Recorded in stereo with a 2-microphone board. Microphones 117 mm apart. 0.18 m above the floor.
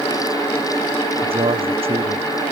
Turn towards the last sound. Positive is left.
turn(degrees=-55)  # may be behind; listen again after turning